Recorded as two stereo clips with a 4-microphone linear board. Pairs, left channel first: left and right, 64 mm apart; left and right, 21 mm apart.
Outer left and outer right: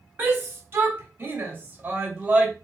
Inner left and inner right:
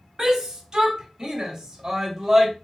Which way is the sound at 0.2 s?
35° right (ahead or behind).